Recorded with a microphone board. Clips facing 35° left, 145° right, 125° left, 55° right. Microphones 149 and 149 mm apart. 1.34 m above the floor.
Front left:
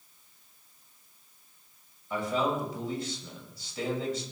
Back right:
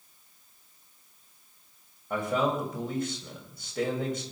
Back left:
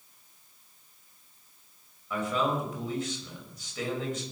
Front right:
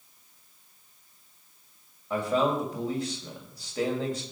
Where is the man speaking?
110° right, 7 m.